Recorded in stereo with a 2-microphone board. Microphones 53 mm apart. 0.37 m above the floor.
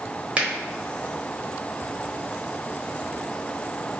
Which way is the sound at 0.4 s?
25° right (ahead or behind).